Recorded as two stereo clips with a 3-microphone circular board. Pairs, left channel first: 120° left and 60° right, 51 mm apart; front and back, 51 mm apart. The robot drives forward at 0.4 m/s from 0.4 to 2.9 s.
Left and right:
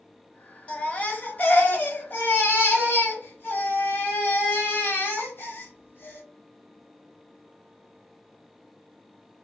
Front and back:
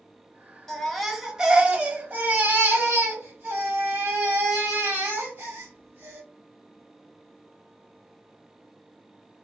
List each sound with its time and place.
0.7 s a baby crying: 75° left, 0.7 m; by 6.2 s 155° left, 1.1 m